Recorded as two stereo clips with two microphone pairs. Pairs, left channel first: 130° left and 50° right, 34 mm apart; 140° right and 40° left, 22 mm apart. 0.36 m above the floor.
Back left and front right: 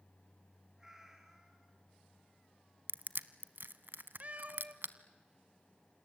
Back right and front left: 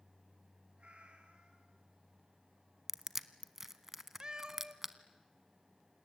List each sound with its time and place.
0.8 s a cat meowing: 25° left, 3 m
2.9 s crushing: 40° right, 0.9 m
4.2 s a cat meowing: 15° right, 1.1 m